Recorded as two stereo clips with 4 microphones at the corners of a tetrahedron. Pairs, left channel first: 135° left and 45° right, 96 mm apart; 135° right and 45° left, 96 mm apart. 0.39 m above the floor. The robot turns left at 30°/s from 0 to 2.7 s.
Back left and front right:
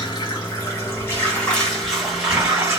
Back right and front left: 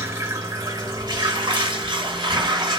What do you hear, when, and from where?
0.0 s running water: 105° left, 1.2 m; by 2.8 s 20° left, 1.2 m